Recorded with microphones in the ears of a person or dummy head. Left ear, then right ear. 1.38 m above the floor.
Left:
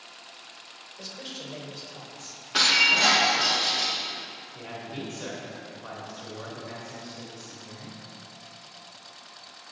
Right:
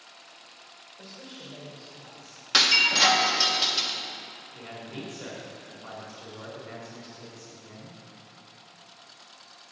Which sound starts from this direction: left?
A man speaking, at 1.0 s.